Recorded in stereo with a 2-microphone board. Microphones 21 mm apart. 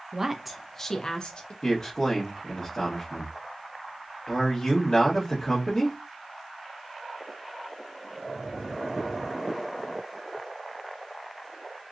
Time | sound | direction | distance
0.1 | a woman speaking | 30° right (ahead or behind) | 0.6 m
1.6 | a man speaking | 30° left (ahead or behind) | 1.3 m